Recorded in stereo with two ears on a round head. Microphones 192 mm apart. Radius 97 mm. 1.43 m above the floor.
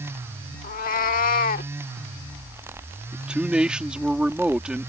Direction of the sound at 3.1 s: 5° right (ahead or behind).